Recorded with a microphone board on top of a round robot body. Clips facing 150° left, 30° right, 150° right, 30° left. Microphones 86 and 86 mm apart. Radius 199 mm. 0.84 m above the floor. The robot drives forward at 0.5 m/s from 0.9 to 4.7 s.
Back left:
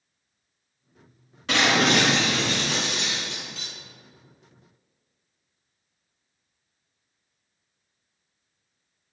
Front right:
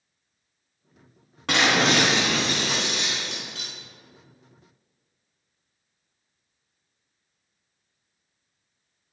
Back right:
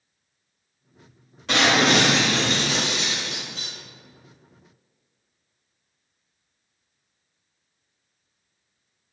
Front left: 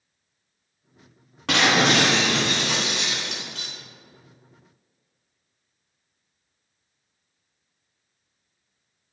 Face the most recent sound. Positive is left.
turn(degrees=5)